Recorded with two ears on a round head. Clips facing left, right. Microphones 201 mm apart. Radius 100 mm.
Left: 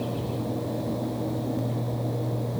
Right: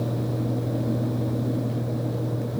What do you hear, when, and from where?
Only background noise.